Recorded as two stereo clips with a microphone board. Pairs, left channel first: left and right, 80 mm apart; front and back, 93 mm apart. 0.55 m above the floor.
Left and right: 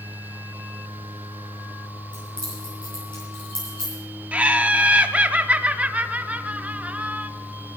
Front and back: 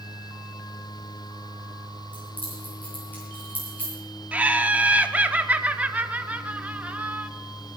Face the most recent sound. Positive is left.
turn(degrees=-135)